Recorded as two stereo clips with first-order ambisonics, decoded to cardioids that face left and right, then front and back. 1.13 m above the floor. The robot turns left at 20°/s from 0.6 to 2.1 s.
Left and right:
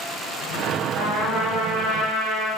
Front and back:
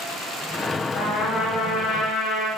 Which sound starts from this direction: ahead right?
A trumpet, at 0.9 s.